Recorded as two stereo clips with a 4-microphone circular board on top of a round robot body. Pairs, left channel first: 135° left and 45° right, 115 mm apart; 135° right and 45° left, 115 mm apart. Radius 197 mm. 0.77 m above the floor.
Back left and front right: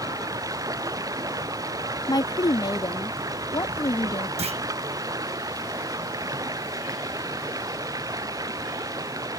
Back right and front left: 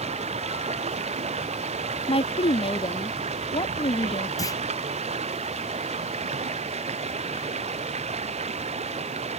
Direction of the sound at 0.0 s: 15° left.